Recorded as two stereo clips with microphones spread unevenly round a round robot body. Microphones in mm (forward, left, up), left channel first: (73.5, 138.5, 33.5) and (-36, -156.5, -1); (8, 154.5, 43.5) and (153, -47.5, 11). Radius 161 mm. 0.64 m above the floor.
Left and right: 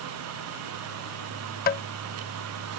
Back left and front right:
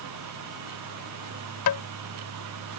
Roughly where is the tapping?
Behind left.